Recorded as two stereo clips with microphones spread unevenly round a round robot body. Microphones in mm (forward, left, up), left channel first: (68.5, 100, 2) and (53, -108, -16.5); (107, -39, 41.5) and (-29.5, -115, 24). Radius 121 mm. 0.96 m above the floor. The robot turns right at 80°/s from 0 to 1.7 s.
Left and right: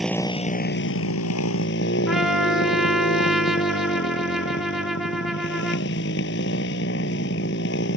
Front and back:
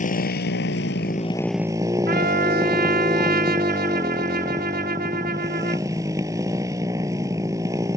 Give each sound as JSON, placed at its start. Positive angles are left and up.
{"t": 0.0, "sound": "a motorcycle", "azimuth_deg": -5}
{"t": 2.1, "sound": "a trumpet", "azimuth_deg": 175}